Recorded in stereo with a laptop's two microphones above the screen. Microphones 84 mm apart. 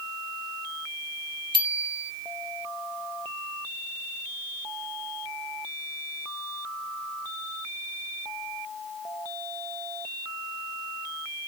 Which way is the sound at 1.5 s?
75° right (ahead or behind).